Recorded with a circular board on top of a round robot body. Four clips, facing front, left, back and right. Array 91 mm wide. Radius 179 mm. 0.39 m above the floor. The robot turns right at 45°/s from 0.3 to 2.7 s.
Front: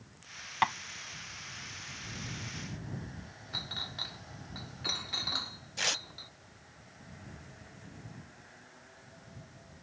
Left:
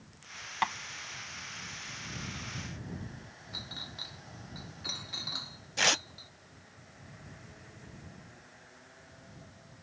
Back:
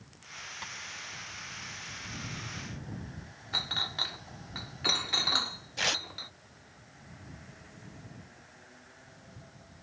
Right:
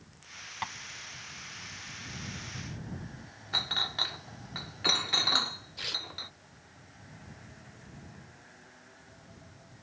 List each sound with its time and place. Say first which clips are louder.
0.6 s tapping: left 7 dB, front 19 dB; 25° left; by 0.7 s 30° left
3.5 s a clink: right 12 dB, back 7 dB; 120° right
5.8 s tearing paper: left 14 dB, back 4 dB; 105° left